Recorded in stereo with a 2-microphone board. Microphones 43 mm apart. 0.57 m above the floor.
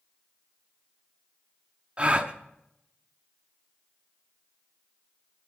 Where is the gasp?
30° right (ahead or behind), 0.7 m.